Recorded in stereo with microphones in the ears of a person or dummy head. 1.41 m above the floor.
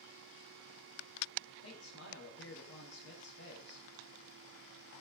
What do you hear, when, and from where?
1.6 s a man speaking: 85° left, 6.5 m